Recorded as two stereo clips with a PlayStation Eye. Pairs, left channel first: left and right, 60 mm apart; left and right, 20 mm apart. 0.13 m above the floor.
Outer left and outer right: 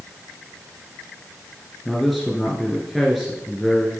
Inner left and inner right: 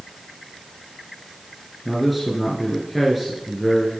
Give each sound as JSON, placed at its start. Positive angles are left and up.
{"t": 1.9, "sound": "a man speaking", "side_deg": 0, "distance_m": 1.5}